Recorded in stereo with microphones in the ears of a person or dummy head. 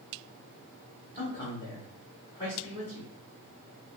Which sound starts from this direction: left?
A man speaking, at 1.1 s.